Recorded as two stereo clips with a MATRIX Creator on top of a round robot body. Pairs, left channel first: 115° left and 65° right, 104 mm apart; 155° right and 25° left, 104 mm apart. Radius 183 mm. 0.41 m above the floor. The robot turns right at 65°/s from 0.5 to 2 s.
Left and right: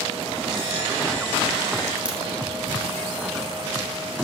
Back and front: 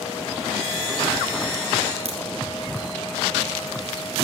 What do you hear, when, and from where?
2.0 s a crack: 15° left, 2.5 m